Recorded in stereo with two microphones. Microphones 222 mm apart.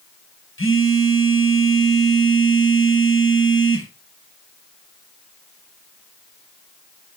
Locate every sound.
0.6 s a phone buzzing: 70° left (ahead or behind), 3.5 m